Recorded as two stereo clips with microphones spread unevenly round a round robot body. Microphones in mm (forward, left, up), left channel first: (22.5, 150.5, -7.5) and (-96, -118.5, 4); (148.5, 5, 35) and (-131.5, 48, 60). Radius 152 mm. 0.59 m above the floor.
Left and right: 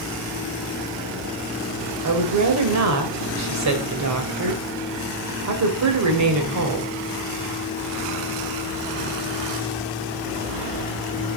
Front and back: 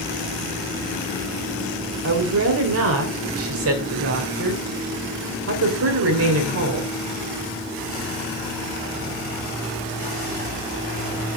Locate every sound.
2.0 s a woman speaking: 145° right, 2.5 m